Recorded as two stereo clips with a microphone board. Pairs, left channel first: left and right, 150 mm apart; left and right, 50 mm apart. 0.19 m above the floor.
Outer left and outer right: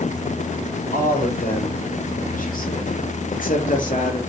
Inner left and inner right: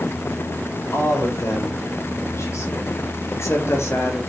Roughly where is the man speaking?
Left.